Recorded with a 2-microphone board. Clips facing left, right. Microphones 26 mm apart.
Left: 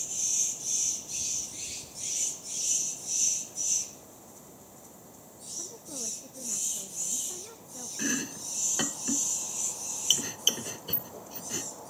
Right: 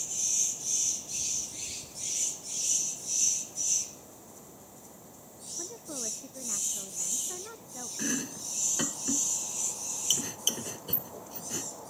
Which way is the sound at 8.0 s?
25° left (ahead or behind).